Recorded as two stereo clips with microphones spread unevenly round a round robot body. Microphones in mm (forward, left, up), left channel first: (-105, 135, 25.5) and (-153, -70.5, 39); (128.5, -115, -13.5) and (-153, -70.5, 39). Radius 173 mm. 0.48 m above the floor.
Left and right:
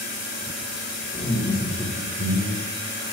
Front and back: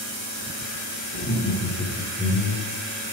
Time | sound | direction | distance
1.1 | laughter | 15° left | 1.5 m